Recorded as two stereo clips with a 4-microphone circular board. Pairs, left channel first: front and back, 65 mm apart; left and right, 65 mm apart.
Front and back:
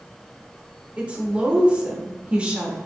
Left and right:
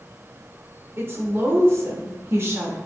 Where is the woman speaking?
115° right, 1.0 m.